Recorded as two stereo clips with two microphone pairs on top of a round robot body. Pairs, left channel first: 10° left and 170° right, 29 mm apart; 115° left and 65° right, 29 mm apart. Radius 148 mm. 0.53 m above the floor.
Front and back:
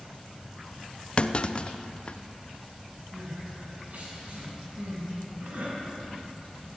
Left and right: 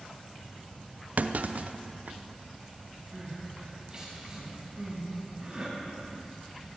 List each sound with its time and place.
1.2 s a clunk: 40° right, 0.6 m
3.1 s crying: 135° right, 5 m